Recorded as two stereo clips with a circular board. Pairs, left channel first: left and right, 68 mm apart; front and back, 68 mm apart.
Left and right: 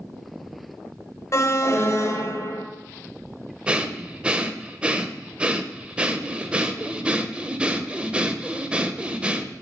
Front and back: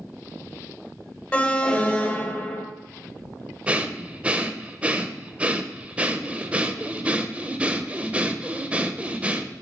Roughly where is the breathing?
Behind right.